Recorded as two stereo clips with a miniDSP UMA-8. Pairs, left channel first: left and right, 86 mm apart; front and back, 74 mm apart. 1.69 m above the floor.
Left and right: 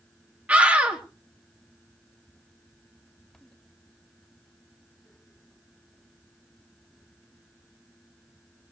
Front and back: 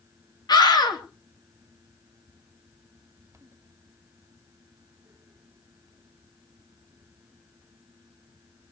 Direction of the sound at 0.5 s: 20° right.